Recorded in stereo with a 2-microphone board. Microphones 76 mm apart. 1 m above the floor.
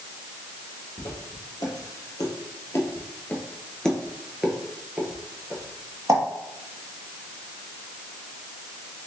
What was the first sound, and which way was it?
Footsteps, 60° left (ahead or behind).